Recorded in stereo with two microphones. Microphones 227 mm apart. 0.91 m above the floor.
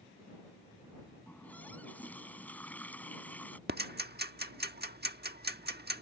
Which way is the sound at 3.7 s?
45° right (ahead or behind).